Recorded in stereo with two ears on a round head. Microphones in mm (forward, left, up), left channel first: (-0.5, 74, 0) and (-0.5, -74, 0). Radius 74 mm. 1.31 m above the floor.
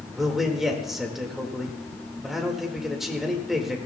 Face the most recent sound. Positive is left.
turn(degrees=0)  # may be behind; listen again after turning